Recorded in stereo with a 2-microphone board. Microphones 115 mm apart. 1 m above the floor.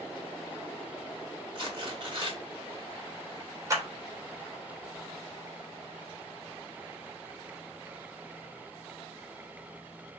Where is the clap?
25° right (ahead or behind), 1.1 m.